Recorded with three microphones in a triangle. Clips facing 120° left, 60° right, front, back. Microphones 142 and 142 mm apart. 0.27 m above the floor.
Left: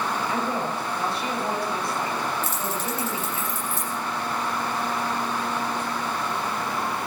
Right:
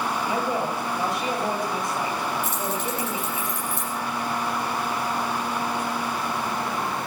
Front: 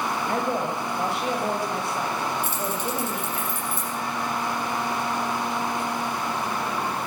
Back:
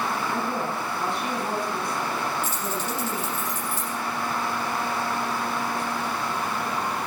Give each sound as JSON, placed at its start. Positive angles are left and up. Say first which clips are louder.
{"t": 0.3, "sound": "a woman speaking", "louder": "right 1 dB, front 2 dB", "azimuth_deg": 5, "distance_m": 5.0}
{"t": 2.4, "sound": "keys jangling", "louder": "right 1 dB, front 1 dB", "azimuth_deg": -35, "distance_m": 7.5}